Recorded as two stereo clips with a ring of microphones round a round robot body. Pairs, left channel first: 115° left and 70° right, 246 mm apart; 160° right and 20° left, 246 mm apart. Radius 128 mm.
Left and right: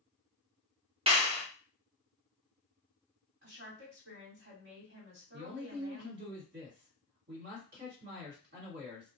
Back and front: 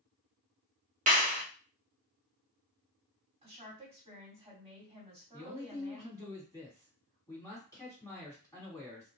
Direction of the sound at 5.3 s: 85° right.